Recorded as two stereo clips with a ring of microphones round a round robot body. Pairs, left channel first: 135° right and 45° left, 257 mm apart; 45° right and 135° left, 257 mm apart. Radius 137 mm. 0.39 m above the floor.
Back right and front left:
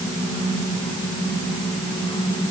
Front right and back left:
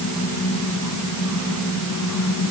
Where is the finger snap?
I don't hear a finger snap.